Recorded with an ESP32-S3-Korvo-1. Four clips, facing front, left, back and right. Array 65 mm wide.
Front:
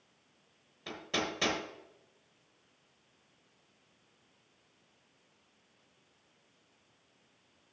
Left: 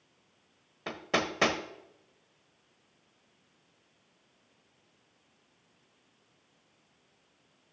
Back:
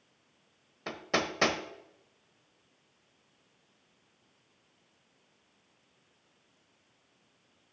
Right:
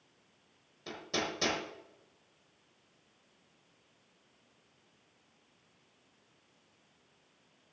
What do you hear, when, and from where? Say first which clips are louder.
0.9 s hammering: left 6 dB, back 4 dB; 130° left, 1.3 m